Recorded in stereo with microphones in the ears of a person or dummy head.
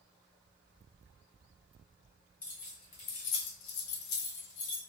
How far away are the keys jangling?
About 0.7 m.